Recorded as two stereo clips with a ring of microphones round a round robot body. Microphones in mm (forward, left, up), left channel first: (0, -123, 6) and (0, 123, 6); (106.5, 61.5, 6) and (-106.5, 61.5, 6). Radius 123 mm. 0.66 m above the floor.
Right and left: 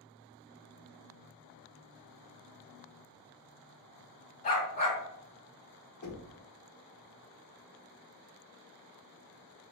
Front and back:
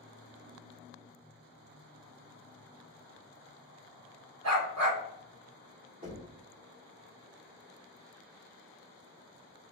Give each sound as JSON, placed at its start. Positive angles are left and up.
{"t": 4.4, "sound": "a dog barking", "azimuth_deg": -150, "distance_m": 2.0}
{"t": 6.0, "sound": "knocking", "azimuth_deg": -120, "distance_m": 1.2}